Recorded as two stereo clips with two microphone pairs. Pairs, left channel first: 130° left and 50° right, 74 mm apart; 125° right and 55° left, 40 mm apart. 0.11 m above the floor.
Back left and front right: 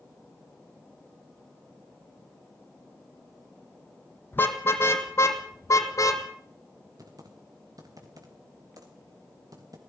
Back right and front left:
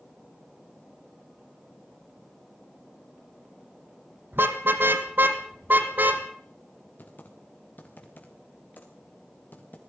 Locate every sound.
4.3 s a car horn: 70° left, 3 m; by 6.2 s 90° left, 3 m
7.0 s typing on a keyboard: 85° right, 4 m